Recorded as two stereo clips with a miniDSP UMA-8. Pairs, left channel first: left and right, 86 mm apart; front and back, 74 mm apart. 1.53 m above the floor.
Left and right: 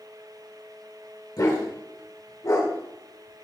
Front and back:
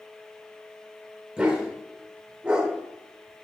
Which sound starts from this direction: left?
A dog barking, at 1.4 s.